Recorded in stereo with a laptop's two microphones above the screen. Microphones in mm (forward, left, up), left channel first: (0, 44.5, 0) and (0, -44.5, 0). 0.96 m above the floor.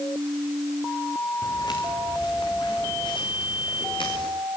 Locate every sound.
1.4 s footsteps: 50° left (ahead or behind), 4.5 m; by 4.3 s 70° left (ahead or behind), 6.5 m